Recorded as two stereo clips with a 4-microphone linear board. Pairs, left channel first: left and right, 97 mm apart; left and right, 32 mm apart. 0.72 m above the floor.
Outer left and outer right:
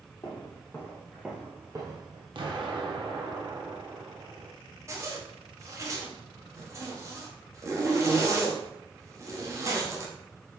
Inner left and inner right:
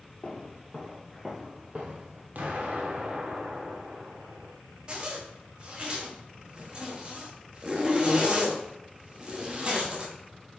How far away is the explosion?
About 0.8 m.